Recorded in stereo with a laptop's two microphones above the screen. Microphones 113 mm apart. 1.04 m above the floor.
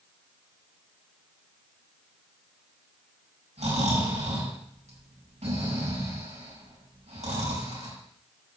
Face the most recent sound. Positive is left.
turn(degrees=-75)  # may be behind; listen again after turning